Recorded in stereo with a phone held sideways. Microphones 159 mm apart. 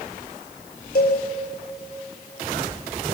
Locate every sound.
0.9 s a cowbell: 85° left, 4.5 m